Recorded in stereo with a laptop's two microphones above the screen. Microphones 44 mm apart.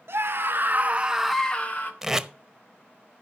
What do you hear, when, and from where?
0.1 s a scream: 60° right (ahead or behind), 1.6 m; by 1.9 s 45° left (ahead or behind), 1.0 m
2.0 s tape being pulled: 10° right (ahead or behind), 0.8 m